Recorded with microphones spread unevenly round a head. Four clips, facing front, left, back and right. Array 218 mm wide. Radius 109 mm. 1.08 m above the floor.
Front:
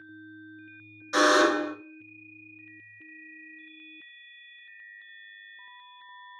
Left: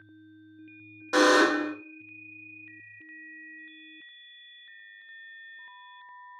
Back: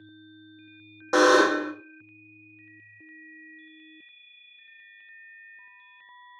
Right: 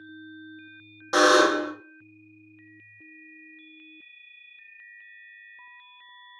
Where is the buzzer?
175° right, 0.8 m.